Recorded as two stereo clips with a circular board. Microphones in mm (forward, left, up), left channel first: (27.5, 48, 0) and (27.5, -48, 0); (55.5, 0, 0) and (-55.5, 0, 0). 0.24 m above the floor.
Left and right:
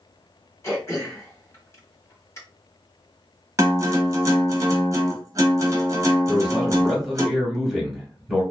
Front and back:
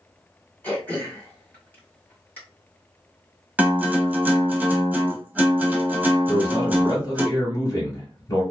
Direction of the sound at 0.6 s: 60° left.